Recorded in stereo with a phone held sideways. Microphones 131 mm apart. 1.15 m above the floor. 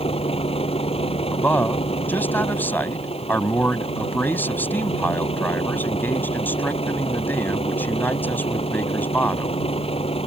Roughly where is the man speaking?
Centre.